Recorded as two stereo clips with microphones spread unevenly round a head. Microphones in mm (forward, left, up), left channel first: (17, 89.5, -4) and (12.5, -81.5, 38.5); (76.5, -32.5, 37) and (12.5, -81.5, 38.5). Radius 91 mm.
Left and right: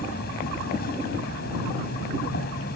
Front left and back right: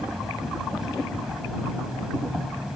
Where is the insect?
130° left.